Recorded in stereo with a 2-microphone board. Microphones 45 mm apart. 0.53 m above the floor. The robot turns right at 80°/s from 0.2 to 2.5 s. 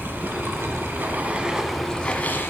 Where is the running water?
125° right, 0.9 m; by 2.5 s 60° left, 0.9 m.